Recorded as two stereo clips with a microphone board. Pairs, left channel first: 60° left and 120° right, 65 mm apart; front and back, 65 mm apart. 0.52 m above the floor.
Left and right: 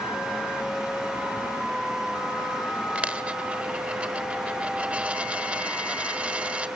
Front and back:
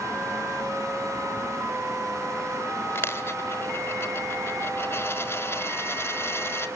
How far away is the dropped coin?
About 1.1 m.